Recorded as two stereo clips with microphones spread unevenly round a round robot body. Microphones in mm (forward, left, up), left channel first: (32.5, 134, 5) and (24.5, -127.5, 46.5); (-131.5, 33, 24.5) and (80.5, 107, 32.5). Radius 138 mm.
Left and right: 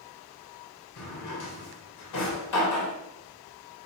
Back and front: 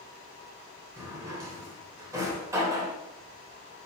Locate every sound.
1.0 s a drawer: 90° left, 0.9 m